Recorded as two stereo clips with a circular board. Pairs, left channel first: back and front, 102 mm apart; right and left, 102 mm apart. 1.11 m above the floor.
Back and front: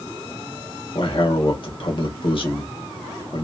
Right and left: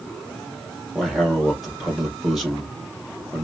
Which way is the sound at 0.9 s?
175° left.